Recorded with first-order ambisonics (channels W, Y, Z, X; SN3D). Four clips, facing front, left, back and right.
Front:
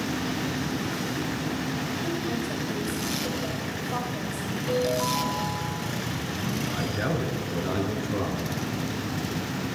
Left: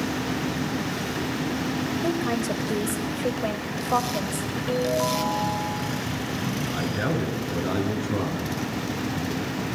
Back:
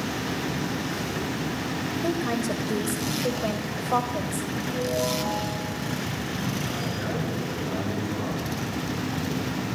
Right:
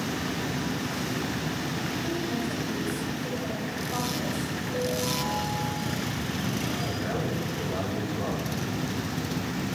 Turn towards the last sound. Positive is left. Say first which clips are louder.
# left 4 dB, front 1 dB
turn(degrees=65)